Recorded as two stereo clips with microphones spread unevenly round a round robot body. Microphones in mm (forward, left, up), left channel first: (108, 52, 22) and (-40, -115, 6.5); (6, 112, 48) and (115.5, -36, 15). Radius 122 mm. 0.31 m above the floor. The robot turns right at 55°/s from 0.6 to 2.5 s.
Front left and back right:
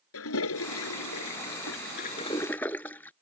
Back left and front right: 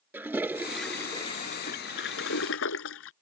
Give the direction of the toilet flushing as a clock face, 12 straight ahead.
11 o'clock.